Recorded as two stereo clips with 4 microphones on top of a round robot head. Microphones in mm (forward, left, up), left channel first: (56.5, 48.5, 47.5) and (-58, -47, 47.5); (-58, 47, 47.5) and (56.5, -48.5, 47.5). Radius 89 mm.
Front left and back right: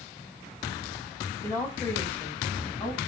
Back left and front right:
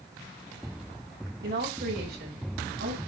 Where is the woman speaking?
35° right, 5.5 m; by 3.0 s 45° right, 5.5 m.